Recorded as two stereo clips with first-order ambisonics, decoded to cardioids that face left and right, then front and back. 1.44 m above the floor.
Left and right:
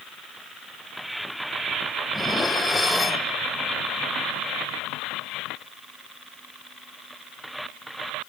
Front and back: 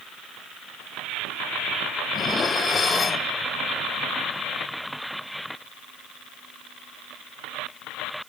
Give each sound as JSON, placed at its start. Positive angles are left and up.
{"t": 2.1, "sound": "dishes clattering", "azimuth_deg": 30, "distance_m": 0.5}